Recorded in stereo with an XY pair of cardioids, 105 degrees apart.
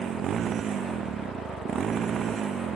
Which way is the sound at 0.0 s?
55° right.